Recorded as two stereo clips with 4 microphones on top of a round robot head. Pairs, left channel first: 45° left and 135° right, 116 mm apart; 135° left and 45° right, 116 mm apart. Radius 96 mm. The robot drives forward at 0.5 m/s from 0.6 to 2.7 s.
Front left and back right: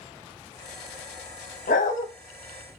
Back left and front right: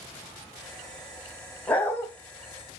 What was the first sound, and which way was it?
A dog barking, 60° left.